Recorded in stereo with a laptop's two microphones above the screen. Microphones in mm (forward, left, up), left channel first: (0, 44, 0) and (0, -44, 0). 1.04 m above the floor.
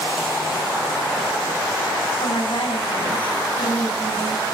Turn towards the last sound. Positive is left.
turn(degrees=70)  # may be behind; listen again after turning